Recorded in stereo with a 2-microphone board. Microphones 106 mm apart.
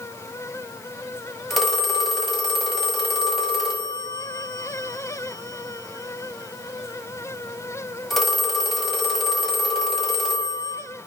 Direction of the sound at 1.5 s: Centre (ahead or behind).